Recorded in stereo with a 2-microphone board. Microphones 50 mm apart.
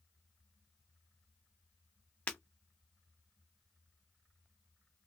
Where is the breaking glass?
30° left (ahead or behind), 0.8 m.